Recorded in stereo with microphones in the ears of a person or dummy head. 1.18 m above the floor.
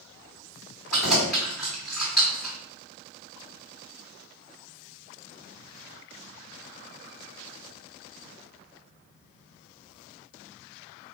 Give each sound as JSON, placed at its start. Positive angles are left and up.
{"t": 0.9, "sound": "keys jangling", "side_deg": 0, "distance_m": 1.9}